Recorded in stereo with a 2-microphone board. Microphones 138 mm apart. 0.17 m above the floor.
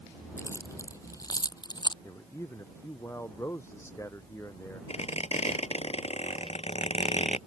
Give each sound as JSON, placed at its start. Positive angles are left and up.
{"t": 0.4, "sound": "keys jangling", "side_deg": 20}
{"t": 2.0, "sound": "a man speaking", "side_deg": 20}
{"t": 4.9, "sound": "a squeak", "side_deg": 50}